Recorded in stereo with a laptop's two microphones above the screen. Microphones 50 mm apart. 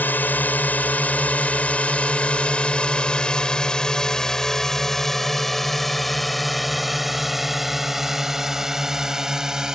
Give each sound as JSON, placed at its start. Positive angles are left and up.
{"t": 0.0, "sound": "a drone", "side_deg": 45}